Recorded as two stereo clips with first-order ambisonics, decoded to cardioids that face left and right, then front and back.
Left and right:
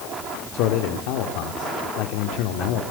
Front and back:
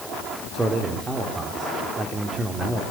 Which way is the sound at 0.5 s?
105° left.